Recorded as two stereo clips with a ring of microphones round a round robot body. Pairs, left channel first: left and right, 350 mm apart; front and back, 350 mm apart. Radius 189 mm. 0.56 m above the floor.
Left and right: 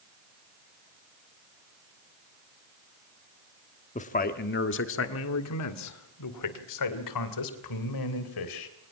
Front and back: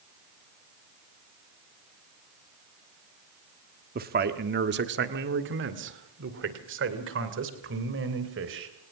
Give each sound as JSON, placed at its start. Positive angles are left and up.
{"t": 4.0, "sound": "a man speaking", "azimuth_deg": 145, "distance_m": 1.3}